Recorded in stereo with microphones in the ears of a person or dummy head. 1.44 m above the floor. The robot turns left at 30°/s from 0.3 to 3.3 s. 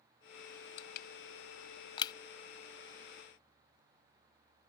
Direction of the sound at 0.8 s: 70° left (ahead or behind).